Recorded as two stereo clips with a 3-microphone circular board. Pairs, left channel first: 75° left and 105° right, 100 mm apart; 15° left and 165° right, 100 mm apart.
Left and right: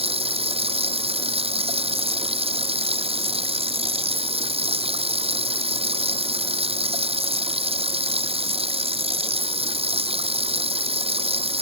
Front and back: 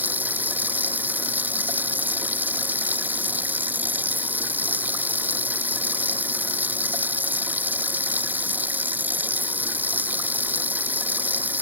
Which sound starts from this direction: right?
Running water, at 0.0 s.